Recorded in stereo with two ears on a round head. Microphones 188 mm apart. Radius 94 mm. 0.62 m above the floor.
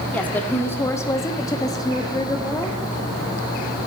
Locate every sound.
0.1 s a woman speaking: 10° left (ahead or behind), 1.7 m; by 2.8 s 15° left (ahead or behind), 1.6 m